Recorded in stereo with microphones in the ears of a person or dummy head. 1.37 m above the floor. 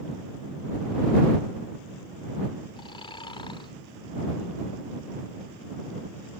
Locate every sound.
2.8 s snoring: 25° left (ahead or behind)